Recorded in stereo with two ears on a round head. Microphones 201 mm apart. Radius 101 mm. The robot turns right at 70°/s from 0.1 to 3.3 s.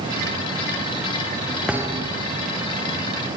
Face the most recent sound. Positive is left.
turn(degrees=-65)